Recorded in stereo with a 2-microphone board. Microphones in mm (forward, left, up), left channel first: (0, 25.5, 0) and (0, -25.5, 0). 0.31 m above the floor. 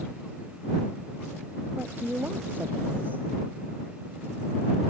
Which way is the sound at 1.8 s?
35° right (ahead or behind).